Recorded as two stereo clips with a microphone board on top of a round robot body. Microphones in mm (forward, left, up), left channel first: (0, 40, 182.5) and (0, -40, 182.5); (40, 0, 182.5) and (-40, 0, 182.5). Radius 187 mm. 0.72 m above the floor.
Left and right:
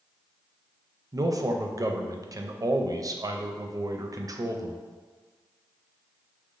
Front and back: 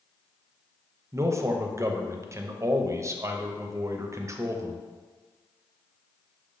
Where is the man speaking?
130° right, 0.7 m.